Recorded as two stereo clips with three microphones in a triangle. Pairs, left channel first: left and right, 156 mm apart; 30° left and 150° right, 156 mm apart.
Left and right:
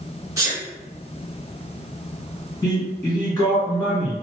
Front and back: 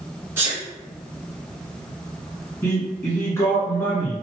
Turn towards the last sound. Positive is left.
turn(degrees=75)